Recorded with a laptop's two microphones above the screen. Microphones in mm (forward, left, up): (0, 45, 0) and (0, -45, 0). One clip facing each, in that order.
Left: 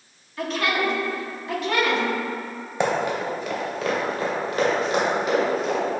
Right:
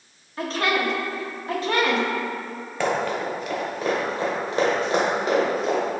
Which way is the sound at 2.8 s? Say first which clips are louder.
Left 1 dB; 20° left (ahead or behind).